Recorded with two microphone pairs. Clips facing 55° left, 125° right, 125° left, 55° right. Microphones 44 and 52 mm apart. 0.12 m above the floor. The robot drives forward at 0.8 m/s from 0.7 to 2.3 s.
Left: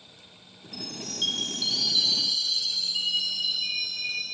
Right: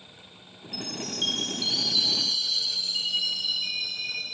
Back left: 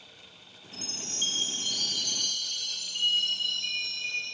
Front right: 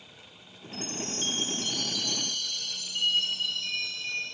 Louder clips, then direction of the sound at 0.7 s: Right 2 dB, front right 4 dB; 125° left.